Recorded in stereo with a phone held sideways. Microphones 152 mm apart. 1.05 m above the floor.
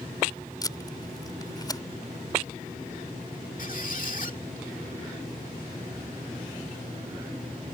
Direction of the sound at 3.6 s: 60° left (ahead or behind).